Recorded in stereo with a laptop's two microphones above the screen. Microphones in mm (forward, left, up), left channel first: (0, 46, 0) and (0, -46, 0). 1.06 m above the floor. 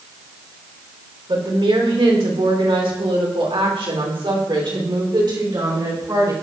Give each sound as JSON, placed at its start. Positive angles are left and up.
{"t": 1.3, "sound": "a woman speaking", "side_deg": -65, "distance_m": 3.0}